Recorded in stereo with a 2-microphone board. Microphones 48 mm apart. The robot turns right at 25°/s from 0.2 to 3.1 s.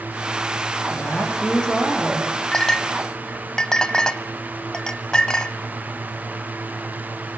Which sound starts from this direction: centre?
A clink, at 2.5 s.